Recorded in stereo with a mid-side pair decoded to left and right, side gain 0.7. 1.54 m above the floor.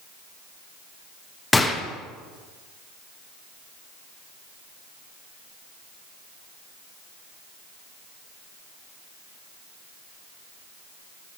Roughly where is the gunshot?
Ahead.